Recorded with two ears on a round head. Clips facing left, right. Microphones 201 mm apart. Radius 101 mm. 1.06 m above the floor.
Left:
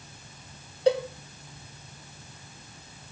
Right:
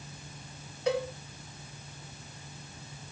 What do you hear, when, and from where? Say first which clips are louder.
0.9 s a cowbell: left 6 dB; 25° left (ahead or behind), 2 m